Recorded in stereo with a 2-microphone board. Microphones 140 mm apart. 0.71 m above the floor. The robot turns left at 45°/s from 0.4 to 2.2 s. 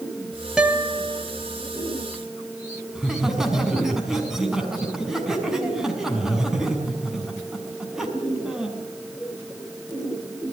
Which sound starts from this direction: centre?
Laughter, at 3.0 s.